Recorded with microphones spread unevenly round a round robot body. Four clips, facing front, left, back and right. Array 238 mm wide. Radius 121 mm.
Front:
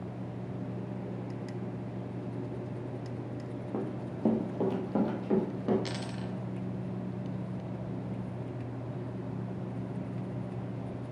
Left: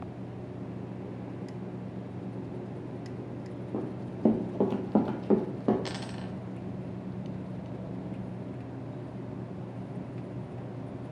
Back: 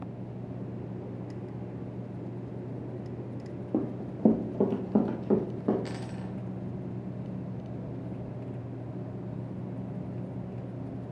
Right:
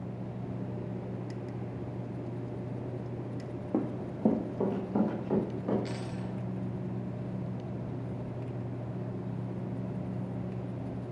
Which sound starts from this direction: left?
A dropped coin, at 5.8 s.